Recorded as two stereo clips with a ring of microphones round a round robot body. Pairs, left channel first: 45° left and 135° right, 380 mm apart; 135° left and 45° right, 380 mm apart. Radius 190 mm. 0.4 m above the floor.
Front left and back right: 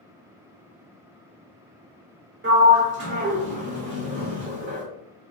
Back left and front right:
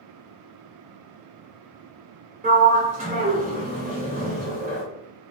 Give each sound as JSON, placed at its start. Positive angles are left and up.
{"t": 2.4, "sound": "a sliding door", "azimuth_deg": -100, "distance_m": 0.8}